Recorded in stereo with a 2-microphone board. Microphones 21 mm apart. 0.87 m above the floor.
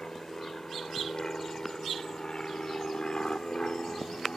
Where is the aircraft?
35° left (ahead or behind); by 4.4 s 40° left (ahead or behind).